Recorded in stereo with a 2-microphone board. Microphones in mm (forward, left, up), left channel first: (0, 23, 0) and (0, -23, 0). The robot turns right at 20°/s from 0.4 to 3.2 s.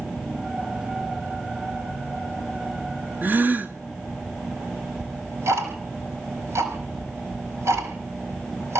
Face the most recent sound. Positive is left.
turn(degrees=-80)